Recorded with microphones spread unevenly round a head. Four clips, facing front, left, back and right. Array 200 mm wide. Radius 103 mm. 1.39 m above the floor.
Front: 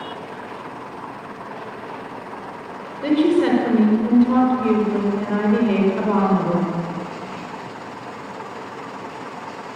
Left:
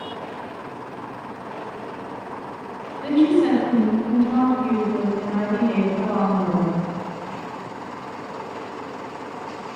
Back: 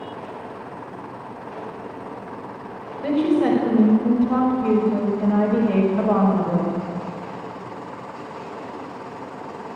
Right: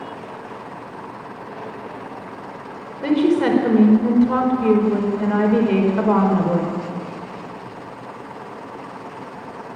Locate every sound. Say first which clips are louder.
3.0 s a woman speaking: even, front 2 dB; 60° right, 4.5 m